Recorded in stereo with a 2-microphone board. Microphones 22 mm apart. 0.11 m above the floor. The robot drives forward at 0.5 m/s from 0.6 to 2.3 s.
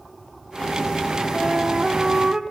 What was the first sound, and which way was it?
A flute, 30° right (ahead or behind).